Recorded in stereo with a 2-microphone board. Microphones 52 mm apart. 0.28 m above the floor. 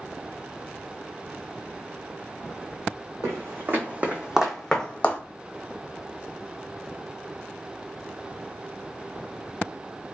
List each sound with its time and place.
3.2 s footsteps: 55° right (ahead or behind), 0.9 m; by 5.2 s 35° left (ahead or behind), 0.7 m